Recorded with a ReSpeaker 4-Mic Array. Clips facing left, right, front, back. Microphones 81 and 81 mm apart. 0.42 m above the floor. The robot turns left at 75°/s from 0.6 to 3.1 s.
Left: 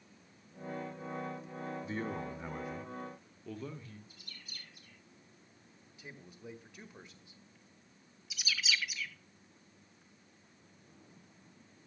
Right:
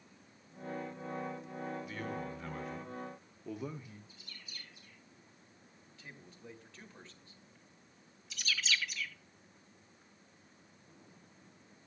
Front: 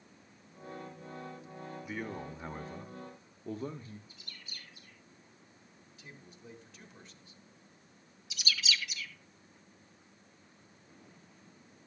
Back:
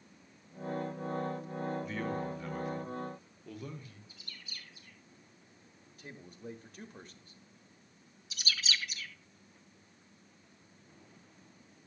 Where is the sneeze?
No sneeze in this recording.